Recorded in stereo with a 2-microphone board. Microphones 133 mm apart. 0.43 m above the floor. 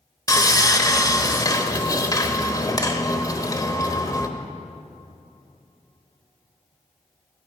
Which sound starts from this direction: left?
Sawing, at 0.3 s.